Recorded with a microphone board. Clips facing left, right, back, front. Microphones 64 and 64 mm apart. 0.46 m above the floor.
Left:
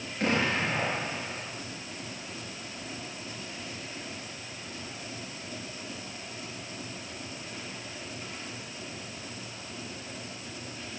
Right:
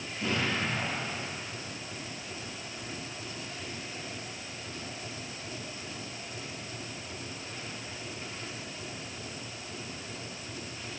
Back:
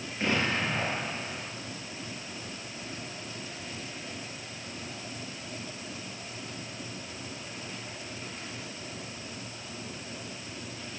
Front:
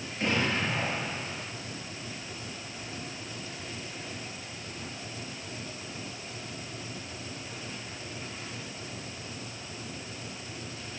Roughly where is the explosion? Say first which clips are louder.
Left 4 dB, even; behind left.